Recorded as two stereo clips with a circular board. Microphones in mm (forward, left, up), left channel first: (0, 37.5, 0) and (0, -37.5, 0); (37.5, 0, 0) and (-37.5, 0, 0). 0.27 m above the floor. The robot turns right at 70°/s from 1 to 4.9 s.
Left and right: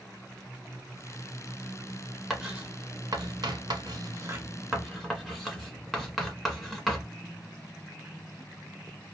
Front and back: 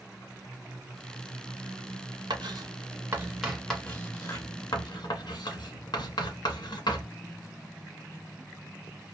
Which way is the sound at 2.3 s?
Straight behind.